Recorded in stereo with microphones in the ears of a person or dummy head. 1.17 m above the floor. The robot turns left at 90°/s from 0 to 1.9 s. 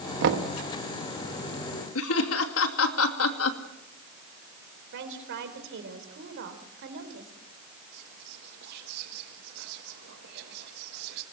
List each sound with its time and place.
0.2 s knocking: 60° right, 1.6 m; by 0.6 s 90° right, 1.6 m
1.9 s laughter: 70° left (ahead or behind), 2.5 m
4.9 s a woman speaking: 65° right (ahead or behind), 4 m
7.9 s whispering: 55° right (ahead or behind), 1.4 m